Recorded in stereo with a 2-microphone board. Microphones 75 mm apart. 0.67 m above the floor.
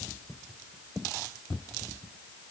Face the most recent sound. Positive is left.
No sound to turn to.